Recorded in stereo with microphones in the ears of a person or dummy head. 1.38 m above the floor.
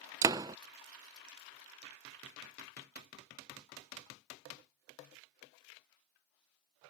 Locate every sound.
0.2 s a door slam: 20° right (ahead or behind)